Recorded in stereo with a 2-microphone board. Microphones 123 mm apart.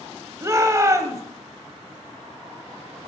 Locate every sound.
0.4 s a shout: 25° right (ahead or behind), 0.9 m